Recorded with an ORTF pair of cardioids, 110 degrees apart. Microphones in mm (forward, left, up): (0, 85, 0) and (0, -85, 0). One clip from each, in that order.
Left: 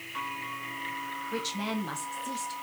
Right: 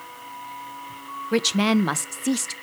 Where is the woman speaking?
65° right, 0.8 m.